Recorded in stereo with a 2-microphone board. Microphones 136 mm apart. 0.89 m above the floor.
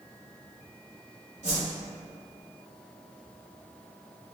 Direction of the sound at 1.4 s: 60° right (ahead or behind).